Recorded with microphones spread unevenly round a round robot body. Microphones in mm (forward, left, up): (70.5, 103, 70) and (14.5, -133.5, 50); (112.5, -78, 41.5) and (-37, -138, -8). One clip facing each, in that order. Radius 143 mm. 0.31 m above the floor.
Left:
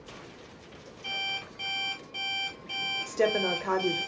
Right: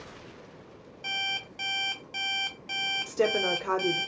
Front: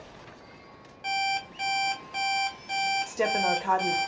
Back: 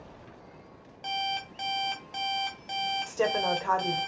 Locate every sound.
1.0 s an alarm clock: 100° right, 1.2 m
3.1 s a woman speaking: 90° right, 0.8 m